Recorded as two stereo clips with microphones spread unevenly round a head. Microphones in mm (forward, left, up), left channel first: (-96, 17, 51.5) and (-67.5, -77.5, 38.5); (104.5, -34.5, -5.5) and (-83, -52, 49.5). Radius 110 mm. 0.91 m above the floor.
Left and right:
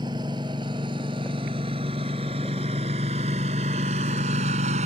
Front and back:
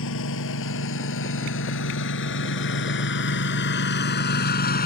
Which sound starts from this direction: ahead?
A lawn mower, at 0.0 s.